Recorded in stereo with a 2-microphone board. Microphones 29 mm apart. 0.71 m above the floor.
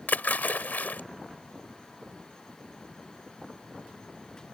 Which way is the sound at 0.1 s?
80° left.